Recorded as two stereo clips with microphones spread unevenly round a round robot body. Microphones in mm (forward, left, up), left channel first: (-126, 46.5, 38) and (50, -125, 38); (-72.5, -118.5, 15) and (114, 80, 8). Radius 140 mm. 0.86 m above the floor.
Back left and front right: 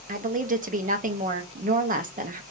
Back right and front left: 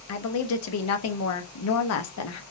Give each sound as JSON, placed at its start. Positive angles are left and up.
{"t": 0.1, "sound": "a woman speaking", "azimuth_deg": -100, "distance_m": 0.9}